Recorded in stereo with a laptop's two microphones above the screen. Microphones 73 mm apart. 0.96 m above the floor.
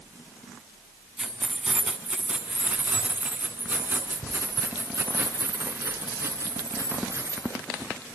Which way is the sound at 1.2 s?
15° right (ahead or behind).